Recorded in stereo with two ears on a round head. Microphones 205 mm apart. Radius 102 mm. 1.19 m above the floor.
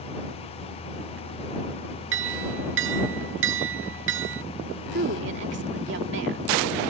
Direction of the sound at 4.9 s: 55° right (ahead or behind).